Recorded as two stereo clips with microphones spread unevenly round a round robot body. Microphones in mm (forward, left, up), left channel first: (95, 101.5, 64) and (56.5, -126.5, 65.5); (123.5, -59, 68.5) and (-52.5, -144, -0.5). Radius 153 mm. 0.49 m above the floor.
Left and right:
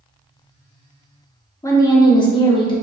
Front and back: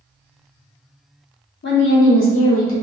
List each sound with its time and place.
1.6 s a woman speaking: 10° left, 0.8 m; by 2.7 s 15° left, 1.3 m